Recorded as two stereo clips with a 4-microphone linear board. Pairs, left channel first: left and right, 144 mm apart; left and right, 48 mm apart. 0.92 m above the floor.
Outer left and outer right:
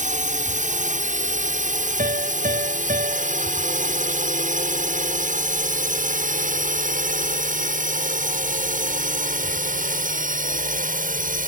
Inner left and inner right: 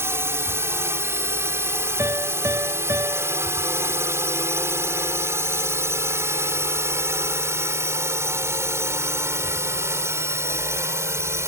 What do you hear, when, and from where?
0.0 s a drone: 60° right (ahead or behind); by 11.5 s 70° right (ahead or behind)
2.0 s a piano: 70° right (ahead or behind)